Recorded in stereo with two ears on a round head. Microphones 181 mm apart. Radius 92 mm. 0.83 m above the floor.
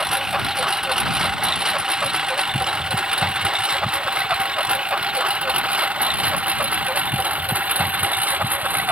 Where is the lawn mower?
5° right (ahead or behind); by 8.9 s 10° right (ahead or behind).